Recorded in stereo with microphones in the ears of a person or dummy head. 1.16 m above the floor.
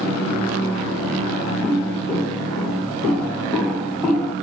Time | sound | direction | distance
1.6 | footsteps | 10° left (ahead or behind) | 2.0 m